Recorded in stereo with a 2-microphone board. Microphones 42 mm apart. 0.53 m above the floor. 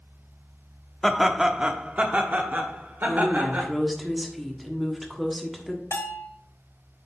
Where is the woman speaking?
Centre (ahead or behind), 1.3 m.